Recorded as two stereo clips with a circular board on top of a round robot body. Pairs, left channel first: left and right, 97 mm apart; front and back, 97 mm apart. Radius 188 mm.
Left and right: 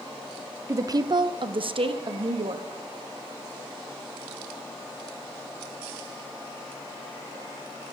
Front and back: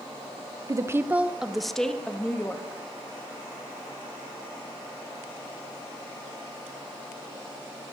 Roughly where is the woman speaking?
Behind right.